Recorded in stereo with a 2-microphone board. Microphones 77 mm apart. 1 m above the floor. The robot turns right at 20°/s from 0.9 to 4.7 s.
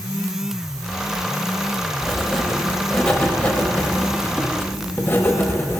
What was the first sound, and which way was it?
Writing, straight ahead.